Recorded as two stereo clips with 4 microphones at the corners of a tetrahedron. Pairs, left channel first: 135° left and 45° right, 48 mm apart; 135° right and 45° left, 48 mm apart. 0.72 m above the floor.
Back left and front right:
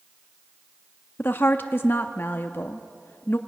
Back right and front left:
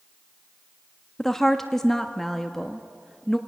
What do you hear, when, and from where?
1.2 s a woman speaking: 145° left, 0.7 m